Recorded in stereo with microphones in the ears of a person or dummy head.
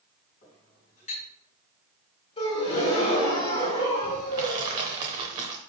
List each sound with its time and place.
0.4 s a clink: 40° left (ahead or behind), 5 m
2.4 s a gasp: 30° left (ahead or behind), 2 m
4.3 s crushing: 20° right (ahead or behind), 1.0 m